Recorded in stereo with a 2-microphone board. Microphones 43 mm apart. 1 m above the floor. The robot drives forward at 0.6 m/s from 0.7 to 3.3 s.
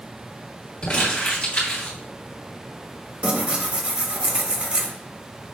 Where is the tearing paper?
30° right (ahead or behind), 0.9 m.